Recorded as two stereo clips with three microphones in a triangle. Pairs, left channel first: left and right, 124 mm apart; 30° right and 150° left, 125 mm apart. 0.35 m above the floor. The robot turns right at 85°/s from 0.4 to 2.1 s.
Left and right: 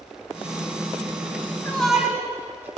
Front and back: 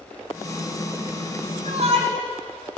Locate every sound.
1.6 s a shout: 160° left, 4.5 m; by 2.7 s 160° right, 4.5 m